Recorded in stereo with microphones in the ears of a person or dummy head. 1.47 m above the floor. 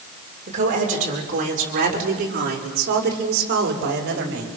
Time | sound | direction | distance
0.5 | a woman speaking | 40° right (ahead or behind) | 6 m